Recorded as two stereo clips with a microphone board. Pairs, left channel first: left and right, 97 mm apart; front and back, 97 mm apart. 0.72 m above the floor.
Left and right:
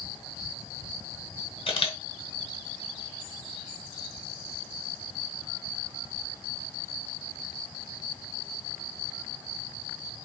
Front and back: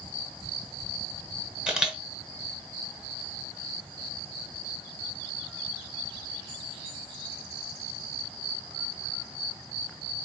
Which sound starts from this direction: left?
A camera shutter, at 1.7 s.